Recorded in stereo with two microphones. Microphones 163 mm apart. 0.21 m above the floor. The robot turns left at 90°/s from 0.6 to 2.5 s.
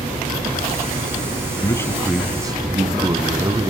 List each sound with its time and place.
1.6 s a man speaking: 40° left, 1.4 m; by 3.7 s 40° right, 1.4 m